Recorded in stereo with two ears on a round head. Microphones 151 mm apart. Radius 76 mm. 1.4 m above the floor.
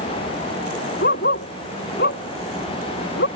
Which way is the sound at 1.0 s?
60° left (ahead or behind).